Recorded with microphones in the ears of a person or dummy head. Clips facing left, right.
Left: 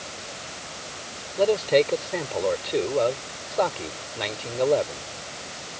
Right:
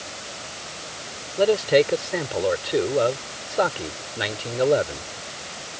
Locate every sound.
1.4 s a man speaking: 10° right (ahead or behind)